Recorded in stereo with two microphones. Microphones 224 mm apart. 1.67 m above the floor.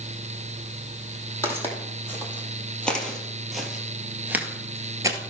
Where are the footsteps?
10° left (ahead or behind), 3 m; by 5.2 s 15° right (ahead or behind), 1.7 m.